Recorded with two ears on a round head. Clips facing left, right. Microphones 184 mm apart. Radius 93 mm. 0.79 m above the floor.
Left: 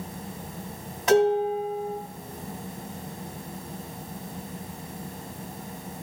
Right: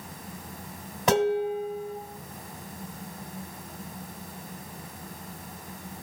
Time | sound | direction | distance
1.1 | dishes clattering | 50° right (ahead or behind) | 2.5 m